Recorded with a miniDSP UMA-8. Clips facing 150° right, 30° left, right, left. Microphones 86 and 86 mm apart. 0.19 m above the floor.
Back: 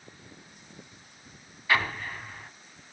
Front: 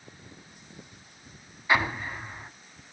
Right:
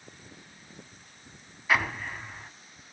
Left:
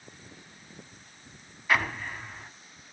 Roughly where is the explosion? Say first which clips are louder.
Front 2 dB, even; ahead.